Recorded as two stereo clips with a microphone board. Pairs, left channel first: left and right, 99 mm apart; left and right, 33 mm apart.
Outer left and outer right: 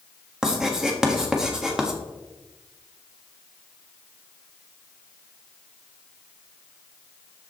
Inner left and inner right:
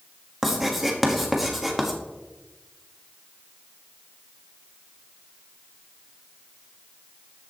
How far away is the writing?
About 1.5 m.